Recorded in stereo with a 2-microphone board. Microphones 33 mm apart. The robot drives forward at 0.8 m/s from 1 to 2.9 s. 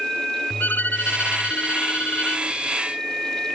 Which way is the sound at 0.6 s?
75° left (ahead or behind).